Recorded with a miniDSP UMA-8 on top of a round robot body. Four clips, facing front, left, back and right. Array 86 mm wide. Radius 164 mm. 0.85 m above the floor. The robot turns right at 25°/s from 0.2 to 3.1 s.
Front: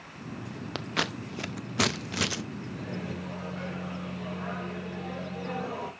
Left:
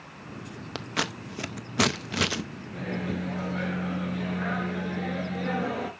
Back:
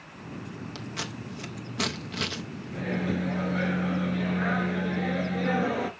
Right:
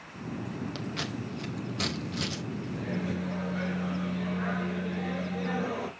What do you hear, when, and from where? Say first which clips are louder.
0.8 s scissors: left 3 dB, front 8 dB; 35° left, 0.6 m; by 2.4 s 80° left, 0.6 m
2.7 s a microwave: left 3 dB, back 10 dB; 155° left, 1.8 m; by 5.9 s 165° left, 1.8 m